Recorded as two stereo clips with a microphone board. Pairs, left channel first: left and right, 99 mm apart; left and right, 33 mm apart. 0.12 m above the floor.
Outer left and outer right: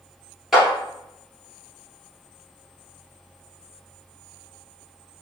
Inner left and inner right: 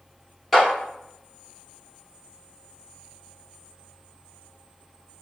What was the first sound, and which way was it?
A clap, 5° right (ahead or behind).